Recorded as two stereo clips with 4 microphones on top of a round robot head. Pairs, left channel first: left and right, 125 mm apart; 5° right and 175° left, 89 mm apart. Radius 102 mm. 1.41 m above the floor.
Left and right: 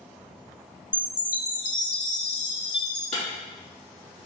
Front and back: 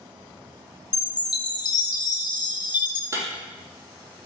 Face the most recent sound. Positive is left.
turn(degrees=120)